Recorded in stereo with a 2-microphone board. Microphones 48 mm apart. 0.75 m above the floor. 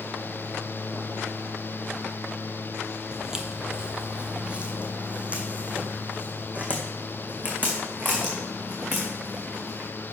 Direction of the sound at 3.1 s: 10° right (ahead or behind).